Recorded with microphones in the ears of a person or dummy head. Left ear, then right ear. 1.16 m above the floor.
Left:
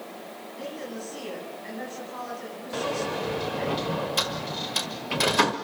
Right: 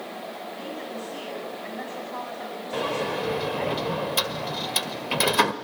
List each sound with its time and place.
0.6 s a woman speaking: 25° right (ahead or behind), 9 m
2.7 s a sliding door: 20° right (ahead or behind), 1.5 m